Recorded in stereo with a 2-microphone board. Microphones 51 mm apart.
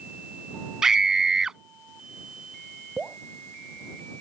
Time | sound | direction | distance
0.8 | a scream | 10° right (ahead or behind) | ?
3.0 | dripping | 15° right (ahead or behind) | ?